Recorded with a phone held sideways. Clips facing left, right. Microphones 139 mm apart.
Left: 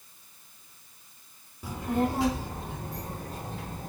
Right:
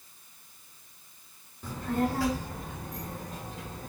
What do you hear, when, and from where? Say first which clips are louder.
1.6 s a child speaking: left 1 dB; 10° left (ahead or behind), 1.5 m; by 3.9 s 40° left (ahead or behind), 3 m